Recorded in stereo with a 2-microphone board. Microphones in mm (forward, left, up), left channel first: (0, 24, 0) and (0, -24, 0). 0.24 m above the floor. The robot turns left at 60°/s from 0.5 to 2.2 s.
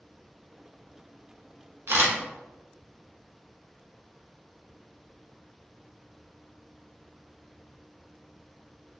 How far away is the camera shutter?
About 0.7 m.